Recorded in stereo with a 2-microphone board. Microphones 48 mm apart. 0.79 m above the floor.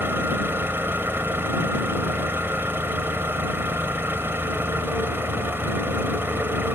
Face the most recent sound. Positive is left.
turn(degrees=-50)  # may be behind; listen again after turning